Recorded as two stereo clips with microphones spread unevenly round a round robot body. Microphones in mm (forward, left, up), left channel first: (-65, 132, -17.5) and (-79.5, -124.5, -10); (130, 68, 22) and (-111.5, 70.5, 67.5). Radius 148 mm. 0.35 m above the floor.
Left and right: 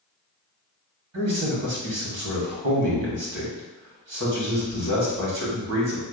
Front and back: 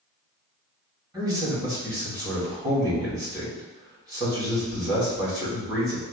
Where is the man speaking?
100° right, 2 m.